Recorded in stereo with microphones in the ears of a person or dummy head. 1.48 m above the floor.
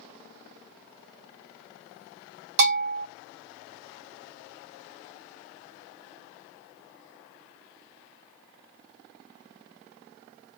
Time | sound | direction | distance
2.6 | a bell | 55° right (ahead or behind) | 2.5 m